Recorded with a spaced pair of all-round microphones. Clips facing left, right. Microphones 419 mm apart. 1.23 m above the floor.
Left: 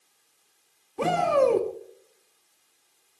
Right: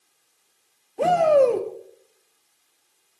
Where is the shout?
15° left (ahead or behind), 1.9 m.